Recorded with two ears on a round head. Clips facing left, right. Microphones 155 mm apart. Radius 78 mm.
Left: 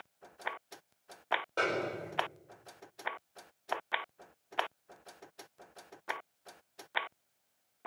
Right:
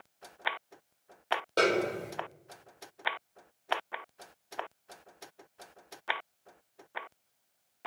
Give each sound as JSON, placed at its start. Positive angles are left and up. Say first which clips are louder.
{"t": 1.6, "sound": "a snare drum", "louder": "right 8 dB", "side_deg": -45, "distance_m": 3.5}